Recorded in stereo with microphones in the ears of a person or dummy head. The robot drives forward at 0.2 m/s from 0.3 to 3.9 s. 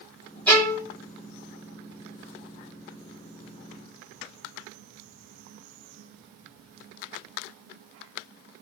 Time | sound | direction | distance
0.5 | a violin | 10° left (ahead or behind) | 1.0 m